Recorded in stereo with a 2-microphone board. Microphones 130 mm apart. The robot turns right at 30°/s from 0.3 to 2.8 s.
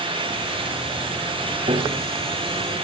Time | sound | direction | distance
1.7 | a piano | 60° right (ahead or behind) | 5.5 m